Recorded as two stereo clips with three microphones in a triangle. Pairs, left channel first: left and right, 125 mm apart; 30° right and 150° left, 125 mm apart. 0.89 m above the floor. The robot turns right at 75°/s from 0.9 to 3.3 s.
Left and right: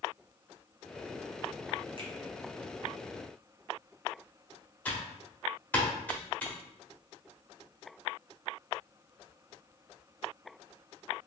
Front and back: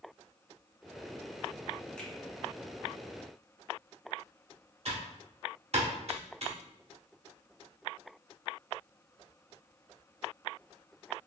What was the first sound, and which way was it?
A finger snap, 110° right.